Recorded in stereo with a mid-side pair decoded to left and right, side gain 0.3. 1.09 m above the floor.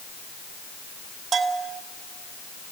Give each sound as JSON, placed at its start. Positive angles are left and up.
{"t": 1.3, "sound": "a bell", "azimuth_deg": -70, "distance_m": 2.5}